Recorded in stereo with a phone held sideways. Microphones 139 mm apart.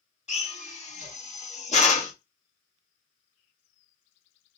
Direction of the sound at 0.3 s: 55° left (ahead or behind).